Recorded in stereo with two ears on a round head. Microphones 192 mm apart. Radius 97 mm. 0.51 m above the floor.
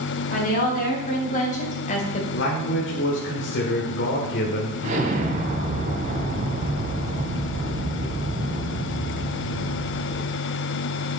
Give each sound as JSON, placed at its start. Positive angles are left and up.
{"t": 0.3, "sound": "a woman speaking", "side_deg": 40, "distance_m": 5.0}
{"t": 2.3, "sound": "a man speaking", "side_deg": 60, "distance_m": 1.5}
{"t": 4.8, "sound": "an explosion", "side_deg": -35, "distance_m": 1.5}